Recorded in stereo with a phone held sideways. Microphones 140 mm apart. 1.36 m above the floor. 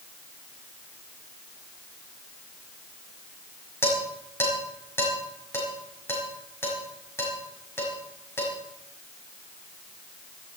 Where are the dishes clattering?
15° left (ahead or behind), 5.5 m.